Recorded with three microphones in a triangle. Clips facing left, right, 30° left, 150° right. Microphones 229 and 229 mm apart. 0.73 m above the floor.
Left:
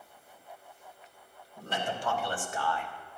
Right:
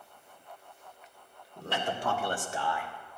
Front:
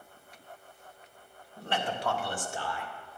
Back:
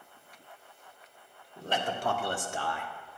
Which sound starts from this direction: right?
A man speaking, at 1.6 s.